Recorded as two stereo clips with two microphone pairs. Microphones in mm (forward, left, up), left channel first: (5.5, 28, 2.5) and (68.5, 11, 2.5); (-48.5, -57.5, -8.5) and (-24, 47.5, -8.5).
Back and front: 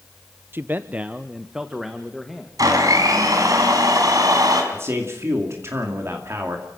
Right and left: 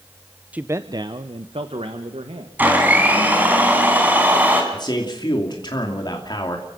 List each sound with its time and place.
0.5 s a man speaking: 5° left, 0.6 m; by 2.5 s 75° left, 1.7 m
2.6 s a blender: 5° left, 4 m
4.7 s a man speaking: 60° right, 2.5 m